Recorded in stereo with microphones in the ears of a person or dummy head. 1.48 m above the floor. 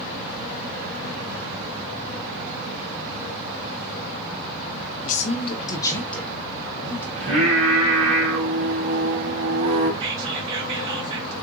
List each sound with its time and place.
5.0 s a man speaking: 45° left (ahead or behind), 0.7 m; by 7.0 s 10° right (ahead or behind), 1.3 m
7.2 s singing: 70° right (ahead or behind), 1.8 m
10.0 s whispering: 70° right (ahead or behind), 1.8 m